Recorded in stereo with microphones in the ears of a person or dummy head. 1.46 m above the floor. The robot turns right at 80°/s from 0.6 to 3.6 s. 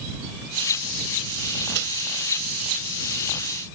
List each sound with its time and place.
1.7 s a microwave: 70° right (ahead or behind); by 1.9 s 55° right (ahead or behind)